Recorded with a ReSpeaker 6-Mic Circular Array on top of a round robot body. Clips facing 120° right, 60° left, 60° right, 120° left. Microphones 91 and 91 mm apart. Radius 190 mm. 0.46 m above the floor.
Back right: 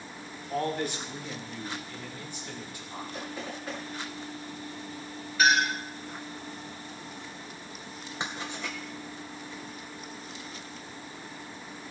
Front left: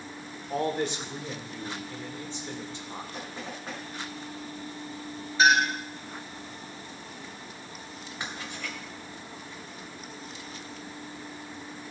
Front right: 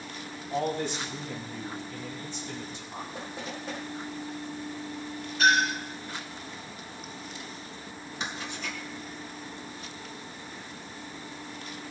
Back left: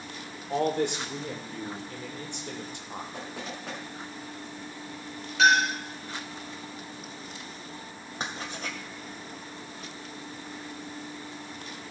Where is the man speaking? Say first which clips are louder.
Front left 2 dB, back left 3 dB; 125° left, 2.5 m.